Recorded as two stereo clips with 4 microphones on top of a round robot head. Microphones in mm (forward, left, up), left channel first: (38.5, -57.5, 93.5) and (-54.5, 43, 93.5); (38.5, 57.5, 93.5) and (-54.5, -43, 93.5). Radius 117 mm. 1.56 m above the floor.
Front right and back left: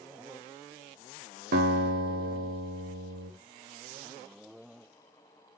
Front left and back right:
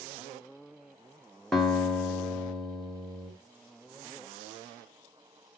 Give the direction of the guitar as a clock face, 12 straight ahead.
8 o'clock.